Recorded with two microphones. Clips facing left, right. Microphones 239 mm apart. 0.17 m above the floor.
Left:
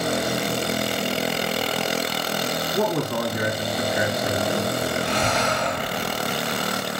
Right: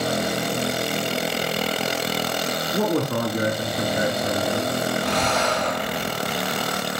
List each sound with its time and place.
2.7 s a man speaking: 50° right (ahead or behind), 5.5 m
5.0 s breathing: 80° right, 10 m